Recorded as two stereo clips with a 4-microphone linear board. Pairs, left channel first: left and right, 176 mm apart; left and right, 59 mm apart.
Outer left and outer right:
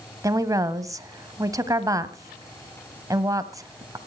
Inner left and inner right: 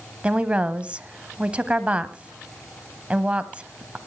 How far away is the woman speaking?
About 1.2 m.